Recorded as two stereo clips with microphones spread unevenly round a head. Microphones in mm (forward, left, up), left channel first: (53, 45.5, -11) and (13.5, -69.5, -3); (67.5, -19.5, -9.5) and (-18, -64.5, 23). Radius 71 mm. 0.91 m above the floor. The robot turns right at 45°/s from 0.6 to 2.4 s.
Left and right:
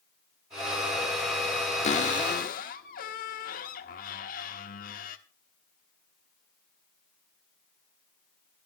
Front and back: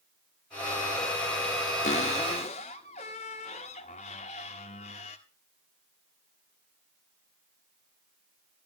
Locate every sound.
1.8 s a cupboard door: 40° left, 1.3 m; by 5.2 s 65° left, 1.3 m